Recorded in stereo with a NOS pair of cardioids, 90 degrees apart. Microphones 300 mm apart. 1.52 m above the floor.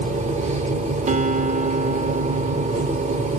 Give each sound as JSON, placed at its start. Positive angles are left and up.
{"t": 0.0, "sound": "a machine running", "azimuth_deg": -25, "distance_m": 0.8}
{"t": 1.1, "sound": "a guitar", "azimuth_deg": -25, "distance_m": 0.6}